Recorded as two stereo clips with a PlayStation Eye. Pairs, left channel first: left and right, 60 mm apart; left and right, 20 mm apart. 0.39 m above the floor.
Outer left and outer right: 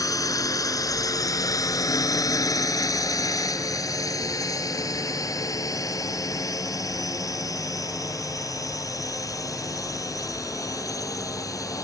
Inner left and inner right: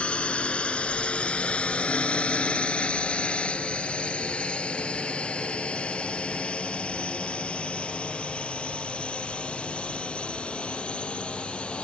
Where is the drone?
75° left (ahead or behind); by 11.8 s 70° left (ahead or behind).